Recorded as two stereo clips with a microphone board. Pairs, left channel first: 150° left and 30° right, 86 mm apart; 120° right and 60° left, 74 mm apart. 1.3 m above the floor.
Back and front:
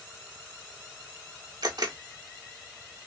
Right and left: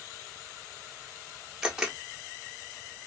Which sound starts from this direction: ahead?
A camera shutter, at 1.6 s.